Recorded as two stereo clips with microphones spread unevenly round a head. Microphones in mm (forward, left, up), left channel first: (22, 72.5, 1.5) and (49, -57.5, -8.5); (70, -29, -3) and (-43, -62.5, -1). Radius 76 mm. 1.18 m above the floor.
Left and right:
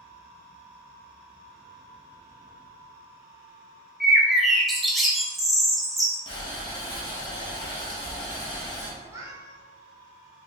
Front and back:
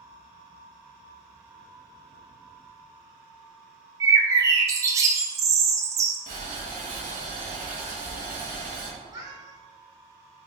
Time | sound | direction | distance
4.0 | a bird | straight behind | 0.5 m
6.3 | boiling | 160° left | 1.3 m
9.0 | a cat meowing | 140° right | 1.1 m